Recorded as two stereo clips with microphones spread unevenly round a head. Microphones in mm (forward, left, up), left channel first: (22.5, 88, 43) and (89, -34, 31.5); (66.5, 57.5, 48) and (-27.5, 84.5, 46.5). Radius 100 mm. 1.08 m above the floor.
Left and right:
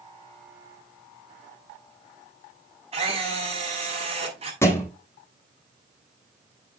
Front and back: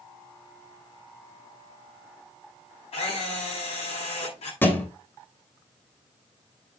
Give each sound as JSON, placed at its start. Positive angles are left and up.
{"t": 2.9, "sound": "a camera shutter", "azimuth_deg": -20, "distance_m": 6.5}
{"t": 4.6, "sound": "a thud", "azimuth_deg": 50, "distance_m": 2.5}